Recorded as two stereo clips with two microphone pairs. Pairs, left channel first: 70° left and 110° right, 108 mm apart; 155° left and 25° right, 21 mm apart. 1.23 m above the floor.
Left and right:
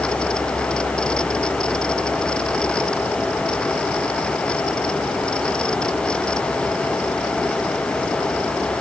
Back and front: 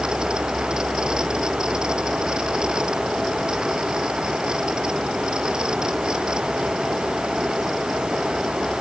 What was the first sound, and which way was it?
Only background noise.